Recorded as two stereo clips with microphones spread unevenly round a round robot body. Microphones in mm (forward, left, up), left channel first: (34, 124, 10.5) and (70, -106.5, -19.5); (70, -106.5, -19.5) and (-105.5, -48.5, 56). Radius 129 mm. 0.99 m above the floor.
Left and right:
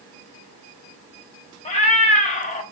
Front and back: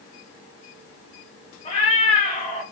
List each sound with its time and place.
1.6 s a cat meowing: 65° left, 0.5 m